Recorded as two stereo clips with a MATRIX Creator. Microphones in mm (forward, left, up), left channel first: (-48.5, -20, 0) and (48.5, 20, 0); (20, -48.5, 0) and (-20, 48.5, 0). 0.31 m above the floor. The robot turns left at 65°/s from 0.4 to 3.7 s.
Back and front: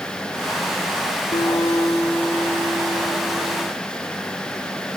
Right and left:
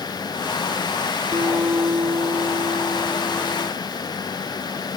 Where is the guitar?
170° left, 4 m; by 3.7 s 15° left, 4 m.